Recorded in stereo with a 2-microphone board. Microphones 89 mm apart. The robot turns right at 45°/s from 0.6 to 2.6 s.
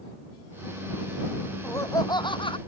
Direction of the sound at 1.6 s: 25° left.